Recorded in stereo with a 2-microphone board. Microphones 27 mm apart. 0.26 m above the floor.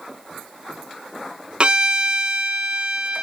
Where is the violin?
40° right (ahead or behind), 0.8 m.